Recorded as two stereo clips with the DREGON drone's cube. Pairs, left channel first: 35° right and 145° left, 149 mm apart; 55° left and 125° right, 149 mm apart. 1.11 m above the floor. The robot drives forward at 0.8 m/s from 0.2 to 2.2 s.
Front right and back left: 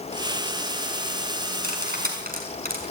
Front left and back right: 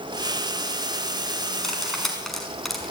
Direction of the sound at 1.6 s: 140° left.